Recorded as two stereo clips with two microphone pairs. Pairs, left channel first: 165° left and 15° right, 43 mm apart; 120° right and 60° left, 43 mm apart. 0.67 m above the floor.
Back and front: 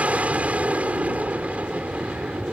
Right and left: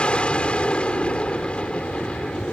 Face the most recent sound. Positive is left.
turn(degrees=-60)